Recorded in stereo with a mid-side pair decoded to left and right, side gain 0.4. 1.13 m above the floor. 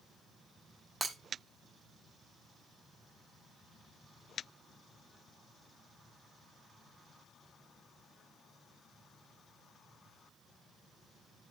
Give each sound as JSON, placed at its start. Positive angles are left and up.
{"t": 1.0, "sound": "breaking glass", "azimuth_deg": -35, "distance_m": 1.7}